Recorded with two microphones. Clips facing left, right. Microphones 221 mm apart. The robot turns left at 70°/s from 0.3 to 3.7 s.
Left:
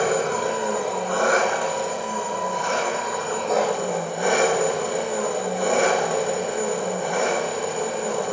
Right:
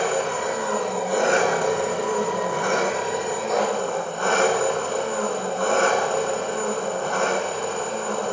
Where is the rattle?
No rattle in this recording.